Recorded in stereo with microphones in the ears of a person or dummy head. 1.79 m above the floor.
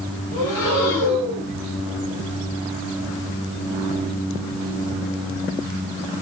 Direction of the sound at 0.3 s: 70° left (ahead or behind).